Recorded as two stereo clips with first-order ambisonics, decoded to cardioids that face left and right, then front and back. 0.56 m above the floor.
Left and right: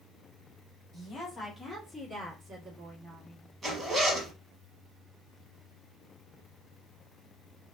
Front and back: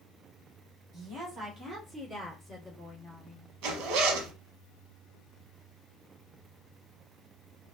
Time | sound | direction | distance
0.9 | a woman speaking | 145° left | 1.5 m
3.6 | a zipper | 165° right | 0.8 m